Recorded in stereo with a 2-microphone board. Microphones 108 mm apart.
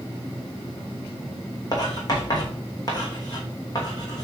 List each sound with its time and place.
1.7 s writing: 40° left (ahead or behind), 2.5 m